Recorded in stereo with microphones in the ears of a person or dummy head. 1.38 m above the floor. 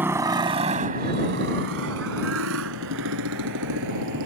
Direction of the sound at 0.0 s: 10° right (ahead or behind).